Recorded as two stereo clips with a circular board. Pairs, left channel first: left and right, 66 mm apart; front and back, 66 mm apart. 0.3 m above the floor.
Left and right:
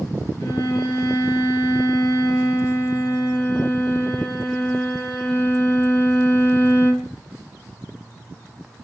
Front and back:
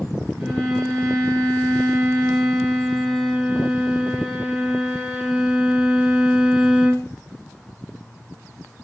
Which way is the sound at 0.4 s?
95° left.